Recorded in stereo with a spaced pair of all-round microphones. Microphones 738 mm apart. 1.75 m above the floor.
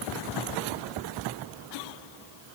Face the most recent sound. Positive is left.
No sound to turn to.